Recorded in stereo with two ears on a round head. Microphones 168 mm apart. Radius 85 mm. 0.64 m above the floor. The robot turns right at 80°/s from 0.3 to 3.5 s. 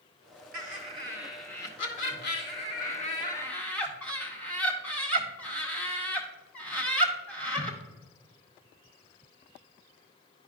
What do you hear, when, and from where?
0.5 s laughter: 50° right (ahead or behind), 1.8 m; by 7.8 s 10° left (ahead or behind), 1.8 m